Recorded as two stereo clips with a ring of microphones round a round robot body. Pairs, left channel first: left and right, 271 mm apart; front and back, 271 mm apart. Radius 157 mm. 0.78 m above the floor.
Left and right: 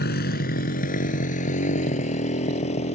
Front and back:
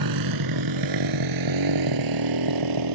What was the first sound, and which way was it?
A motorcycle, 150° left.